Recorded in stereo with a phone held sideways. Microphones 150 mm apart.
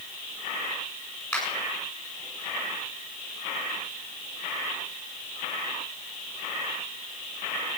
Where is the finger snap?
5° left (ahead or behind), 8.5 m.